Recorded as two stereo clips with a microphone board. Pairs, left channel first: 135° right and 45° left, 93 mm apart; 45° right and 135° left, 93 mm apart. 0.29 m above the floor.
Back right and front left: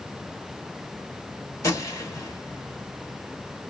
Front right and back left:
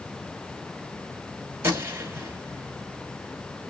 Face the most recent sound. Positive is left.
turn(degrees=-170)